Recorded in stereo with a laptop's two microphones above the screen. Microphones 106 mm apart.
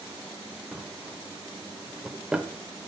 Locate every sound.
0.7 s a drawer: 10° right (ahead or behind), 0.8 m